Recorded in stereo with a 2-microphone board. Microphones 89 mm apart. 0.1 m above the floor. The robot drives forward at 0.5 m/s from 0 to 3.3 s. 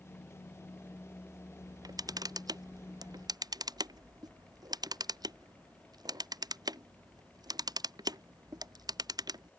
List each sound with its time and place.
1.6 s a camera shutter: 50° right (ahead or behind); by 9.5 s 55° right (ahead or behind)